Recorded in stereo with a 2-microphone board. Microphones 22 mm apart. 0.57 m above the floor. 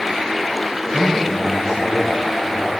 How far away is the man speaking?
About 3.5 m.